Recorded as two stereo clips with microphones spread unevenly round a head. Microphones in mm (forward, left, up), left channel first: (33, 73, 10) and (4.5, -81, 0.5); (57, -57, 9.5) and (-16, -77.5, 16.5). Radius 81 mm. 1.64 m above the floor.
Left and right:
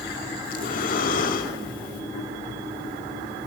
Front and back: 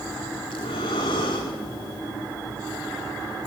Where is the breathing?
50° left, 2.5 m.